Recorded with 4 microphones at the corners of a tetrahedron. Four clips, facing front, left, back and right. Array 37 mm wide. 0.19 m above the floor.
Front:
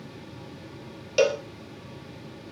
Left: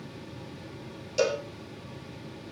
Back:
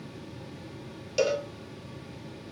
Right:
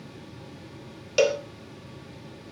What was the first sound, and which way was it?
A cowbell, 55° right.